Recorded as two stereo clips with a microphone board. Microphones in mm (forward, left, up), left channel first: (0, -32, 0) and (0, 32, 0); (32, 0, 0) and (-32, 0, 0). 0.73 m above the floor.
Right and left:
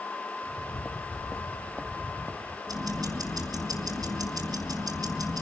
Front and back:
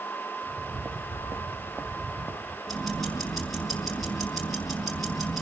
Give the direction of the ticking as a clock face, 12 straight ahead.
9 o'clock.